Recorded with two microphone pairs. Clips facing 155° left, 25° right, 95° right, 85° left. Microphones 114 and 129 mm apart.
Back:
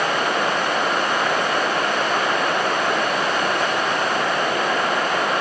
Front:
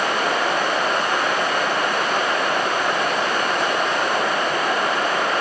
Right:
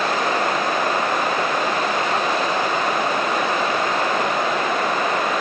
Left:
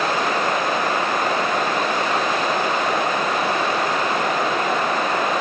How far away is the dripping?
No dripping in this recording.